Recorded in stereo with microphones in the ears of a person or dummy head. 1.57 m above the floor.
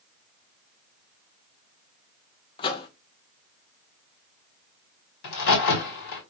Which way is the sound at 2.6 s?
30° left (ahead or behind).